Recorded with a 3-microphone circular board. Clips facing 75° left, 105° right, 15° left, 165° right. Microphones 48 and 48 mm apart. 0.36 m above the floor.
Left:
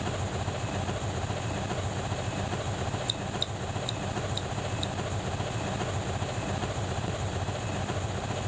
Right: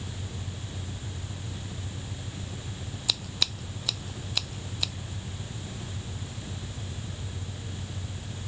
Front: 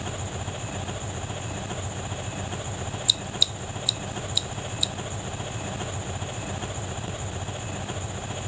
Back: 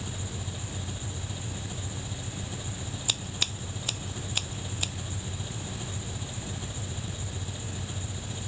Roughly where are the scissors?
Behind right.